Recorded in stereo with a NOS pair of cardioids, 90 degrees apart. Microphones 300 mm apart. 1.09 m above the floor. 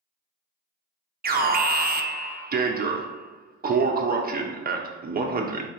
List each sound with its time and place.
1.2 s an alarm: 30° right, 0.6 m